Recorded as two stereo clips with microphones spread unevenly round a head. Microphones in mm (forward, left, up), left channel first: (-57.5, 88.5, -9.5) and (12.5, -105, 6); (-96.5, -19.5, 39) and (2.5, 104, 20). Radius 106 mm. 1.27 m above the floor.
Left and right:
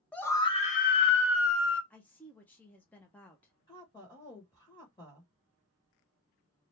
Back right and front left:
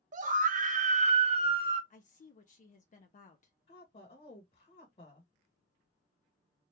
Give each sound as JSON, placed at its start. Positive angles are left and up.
{"t": 0.1, "sound": "a scream", "azimuth_deg": 25, "distance_m": 0.8}
{"t": 1.9, "sound": "a woman speaking", "azimuth_deg": -165, "distance_m": 0.6}
{"t": 3.7, "sound": "a woman speaking", "azimuth_deg": -175, "distance_m": 1.5}